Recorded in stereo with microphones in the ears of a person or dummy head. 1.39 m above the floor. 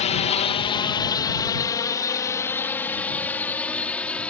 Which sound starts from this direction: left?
A drone, at 0.0 s.